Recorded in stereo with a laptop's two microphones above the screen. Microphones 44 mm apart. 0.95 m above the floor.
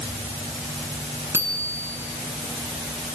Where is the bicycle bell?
70° right (ahead or behind), 7.5 m.